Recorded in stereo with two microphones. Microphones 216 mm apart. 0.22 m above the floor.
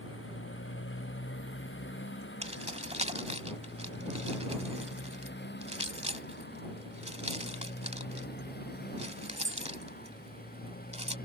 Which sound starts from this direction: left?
A motorcycle, at 0.0 s.